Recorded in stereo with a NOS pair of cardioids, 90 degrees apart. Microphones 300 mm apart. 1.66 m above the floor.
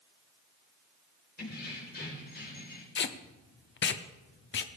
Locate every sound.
1.4 s keys jangling: 35° left, 4 m
3.0 s tape being pulled: 40° left, 0.8 m